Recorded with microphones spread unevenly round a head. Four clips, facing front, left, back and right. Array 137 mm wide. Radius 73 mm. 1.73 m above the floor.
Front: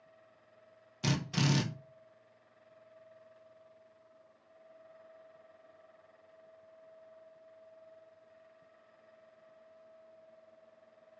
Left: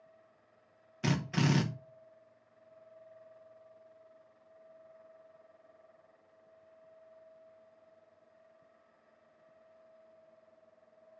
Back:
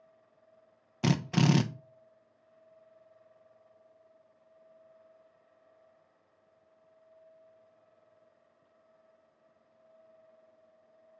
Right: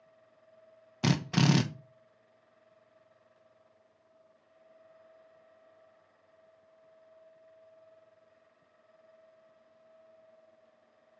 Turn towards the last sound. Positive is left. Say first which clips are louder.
# right 4 dB, back 6 dB
turn(degrees=-150)